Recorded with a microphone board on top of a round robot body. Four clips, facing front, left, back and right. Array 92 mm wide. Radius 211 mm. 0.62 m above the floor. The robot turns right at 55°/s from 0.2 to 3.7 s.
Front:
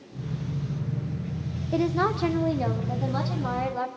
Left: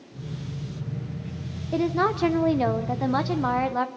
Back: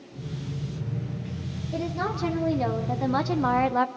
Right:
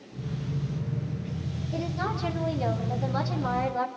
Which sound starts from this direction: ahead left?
A woman speaking, at 1.7 s.